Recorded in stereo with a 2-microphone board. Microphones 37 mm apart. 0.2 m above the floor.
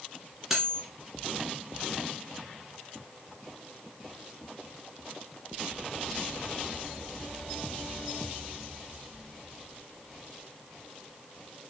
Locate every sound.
0.5 s cutlery clinking: 10° right (ahead or behind), 1.4 m